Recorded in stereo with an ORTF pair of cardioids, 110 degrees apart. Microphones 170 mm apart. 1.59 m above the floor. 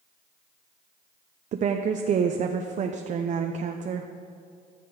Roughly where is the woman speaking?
Ahead right.